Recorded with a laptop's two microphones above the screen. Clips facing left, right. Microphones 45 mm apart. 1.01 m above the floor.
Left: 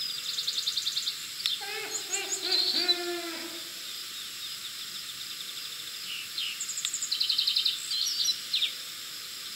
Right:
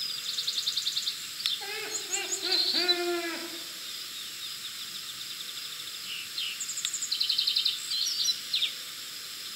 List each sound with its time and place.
1.6 s laughter: 10° left (ahead or behind), 2 m; by 3.5 s 40° right (ahead or behind), 1.1 m